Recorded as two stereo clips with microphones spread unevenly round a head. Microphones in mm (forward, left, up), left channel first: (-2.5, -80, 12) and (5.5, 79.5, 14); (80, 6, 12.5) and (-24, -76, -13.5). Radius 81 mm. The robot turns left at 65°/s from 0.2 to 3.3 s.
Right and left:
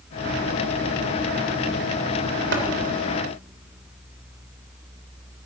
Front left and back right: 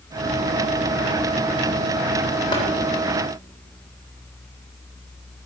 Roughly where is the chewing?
I don't hear chewing.